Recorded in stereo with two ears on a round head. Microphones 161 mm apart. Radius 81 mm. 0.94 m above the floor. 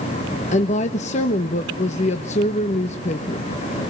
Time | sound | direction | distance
0.5 | a woman speaking | 40° left (ahead or behind) | 1.1 m